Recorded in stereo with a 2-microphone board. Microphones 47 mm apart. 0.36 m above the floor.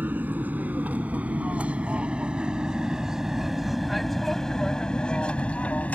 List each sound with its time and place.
0.0 s an aircraft: 40° right (ahead or behind); by 6.0 s 35° left (ahead or behind)